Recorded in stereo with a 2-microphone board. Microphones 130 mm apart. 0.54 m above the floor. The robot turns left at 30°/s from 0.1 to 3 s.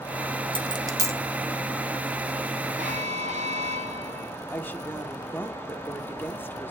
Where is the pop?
I don't hear a pop.